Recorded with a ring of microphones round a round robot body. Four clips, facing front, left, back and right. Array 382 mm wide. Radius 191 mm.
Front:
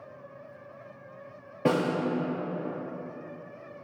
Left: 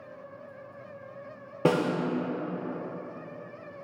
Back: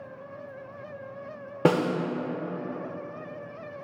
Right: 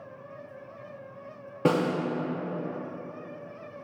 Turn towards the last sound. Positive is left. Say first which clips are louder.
# even, back 3 dB
turn(degrees=175)